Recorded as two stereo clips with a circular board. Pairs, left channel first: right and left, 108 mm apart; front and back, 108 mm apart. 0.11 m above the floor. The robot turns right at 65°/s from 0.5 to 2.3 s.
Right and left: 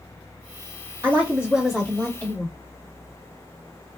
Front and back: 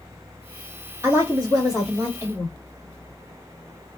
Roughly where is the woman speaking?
Behind left.